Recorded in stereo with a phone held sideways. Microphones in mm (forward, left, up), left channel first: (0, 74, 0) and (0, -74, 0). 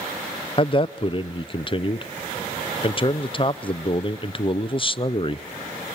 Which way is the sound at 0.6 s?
35° left (ahead or behind).